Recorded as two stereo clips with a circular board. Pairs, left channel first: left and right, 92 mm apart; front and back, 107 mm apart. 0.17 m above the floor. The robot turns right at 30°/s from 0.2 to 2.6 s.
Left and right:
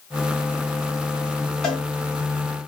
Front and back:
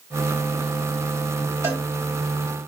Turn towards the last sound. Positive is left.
turn(degrees=-170)